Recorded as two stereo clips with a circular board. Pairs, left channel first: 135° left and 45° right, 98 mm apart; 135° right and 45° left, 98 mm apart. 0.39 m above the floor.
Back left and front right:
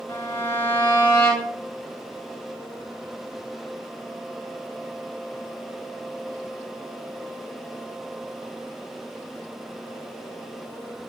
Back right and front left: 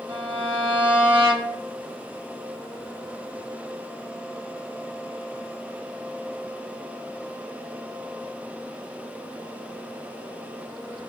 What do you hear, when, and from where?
0.1 s a violin: 75° left, 0.7 m